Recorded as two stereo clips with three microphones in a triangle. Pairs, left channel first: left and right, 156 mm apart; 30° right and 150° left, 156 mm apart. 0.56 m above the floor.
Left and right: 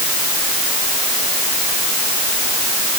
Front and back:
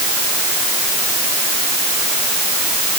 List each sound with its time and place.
Only background noise.